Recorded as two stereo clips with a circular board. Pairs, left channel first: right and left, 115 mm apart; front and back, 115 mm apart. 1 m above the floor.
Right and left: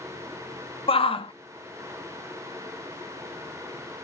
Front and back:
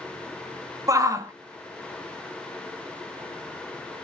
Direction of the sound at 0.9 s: 120° right.